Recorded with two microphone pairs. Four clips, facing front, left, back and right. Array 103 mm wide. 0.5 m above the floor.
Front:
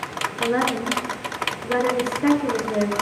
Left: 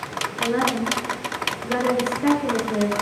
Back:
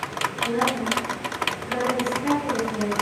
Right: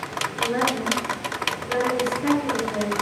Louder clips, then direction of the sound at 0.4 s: Left 2 dB, front 3 dB; 20° left.